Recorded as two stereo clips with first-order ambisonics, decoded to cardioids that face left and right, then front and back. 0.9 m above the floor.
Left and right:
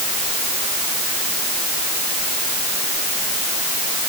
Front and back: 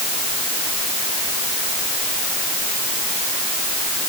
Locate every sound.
Only background noise.